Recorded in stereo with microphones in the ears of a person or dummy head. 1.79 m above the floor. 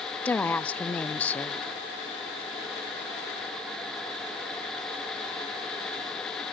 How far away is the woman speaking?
About 0.7 m.